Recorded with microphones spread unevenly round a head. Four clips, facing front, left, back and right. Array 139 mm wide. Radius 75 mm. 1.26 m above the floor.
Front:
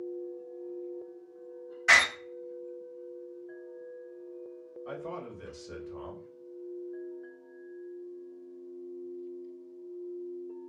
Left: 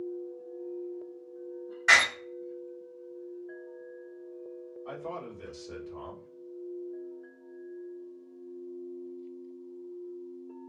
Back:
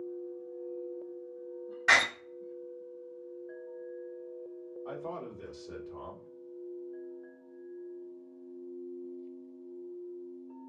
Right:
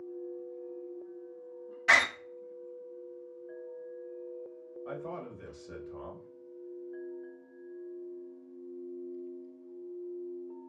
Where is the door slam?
Straight behind, 1.8 m.